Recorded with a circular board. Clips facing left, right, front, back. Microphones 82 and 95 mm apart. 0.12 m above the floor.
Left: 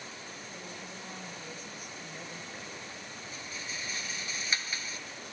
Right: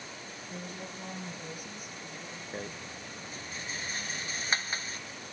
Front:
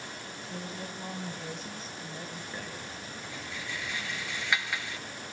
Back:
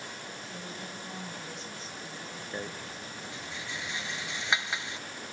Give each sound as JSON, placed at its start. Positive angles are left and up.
{"t": 0.5, "sound": "a woman speaking", "azimuth_deg": -50, "distance_m": 3.0}
{"t": 2.5, "sound": "a rattle", "azimuth_deg": -120, "distance_m": 0.6}